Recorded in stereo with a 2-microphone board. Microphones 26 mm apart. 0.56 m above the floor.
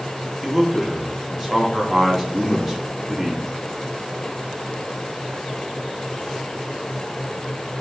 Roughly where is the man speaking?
Centre.